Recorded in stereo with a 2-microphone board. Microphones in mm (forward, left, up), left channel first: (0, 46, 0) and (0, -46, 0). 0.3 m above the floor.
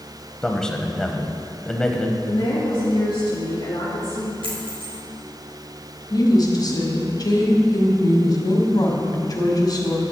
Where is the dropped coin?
70° right (ahead or behind), 3.5 m.